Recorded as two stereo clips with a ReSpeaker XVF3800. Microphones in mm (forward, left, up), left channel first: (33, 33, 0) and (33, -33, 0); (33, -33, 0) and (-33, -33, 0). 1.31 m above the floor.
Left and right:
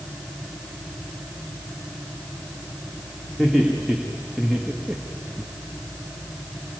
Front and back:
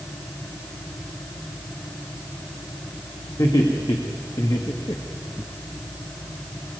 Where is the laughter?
5° right, 3 m; by 5.5 s 25° right, 1.0 m.